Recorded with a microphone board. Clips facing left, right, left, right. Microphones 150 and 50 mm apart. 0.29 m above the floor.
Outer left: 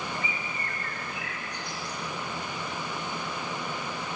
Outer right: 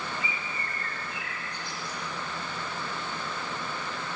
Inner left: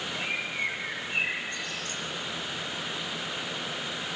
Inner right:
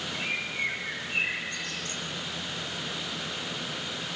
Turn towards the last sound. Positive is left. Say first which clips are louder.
# outer left 1 dB, even
turn(degrees=15)  # may be behind; listen again after turning